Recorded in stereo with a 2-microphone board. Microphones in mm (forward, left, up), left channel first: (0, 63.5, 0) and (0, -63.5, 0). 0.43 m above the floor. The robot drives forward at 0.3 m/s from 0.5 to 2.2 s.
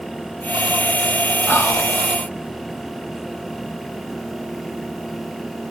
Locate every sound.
1.5 s whispering: 15° left (ahead or behind), 0.8 m